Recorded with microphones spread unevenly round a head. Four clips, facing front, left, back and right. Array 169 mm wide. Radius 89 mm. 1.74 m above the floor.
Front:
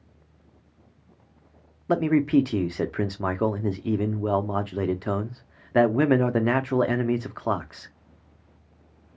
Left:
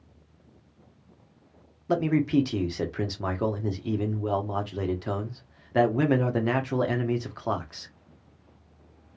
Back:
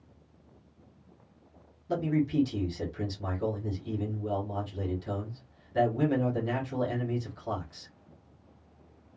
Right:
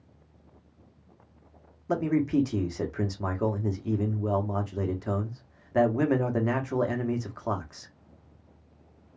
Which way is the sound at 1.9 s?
5° left.